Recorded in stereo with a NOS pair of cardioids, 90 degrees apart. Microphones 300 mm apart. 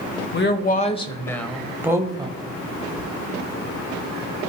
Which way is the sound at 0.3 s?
40° left.